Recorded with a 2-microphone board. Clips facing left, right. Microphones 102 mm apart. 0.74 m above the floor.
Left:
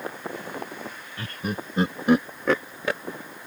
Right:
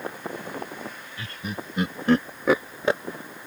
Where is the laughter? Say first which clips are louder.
Left 4 dB; 50° left (ahead or behind); by 3.0 s 25° right (ahead or behind).